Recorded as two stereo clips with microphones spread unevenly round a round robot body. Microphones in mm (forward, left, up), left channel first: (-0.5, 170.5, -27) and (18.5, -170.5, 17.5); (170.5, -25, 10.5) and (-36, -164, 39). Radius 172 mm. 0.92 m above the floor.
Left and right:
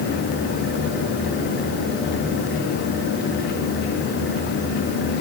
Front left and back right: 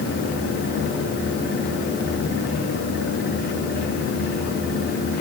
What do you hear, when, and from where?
Only background noise.